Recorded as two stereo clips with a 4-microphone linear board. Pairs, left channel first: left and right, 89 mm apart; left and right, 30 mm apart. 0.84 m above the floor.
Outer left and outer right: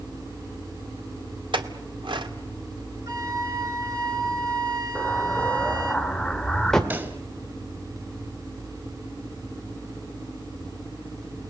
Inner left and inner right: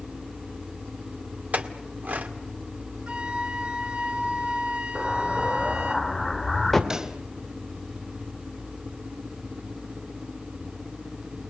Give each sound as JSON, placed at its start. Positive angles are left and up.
{"t": 1.5, "sound": "a clink", "side_deg": -70, "distance_m": 1.8}
{"t": 3.1, "sound": "a flute", "side_deg": -40, "distance_m": 3.0}
{"t": 5.0, "sound": "an explosion", "side_deg": 5, "distance_m": 2.0}
{"t": 6.9, "sound": "a pop", "side_deg": -25, "distance_m": 2.5}